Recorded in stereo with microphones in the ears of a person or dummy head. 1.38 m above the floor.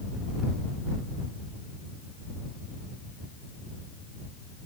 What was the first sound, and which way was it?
Only background noise.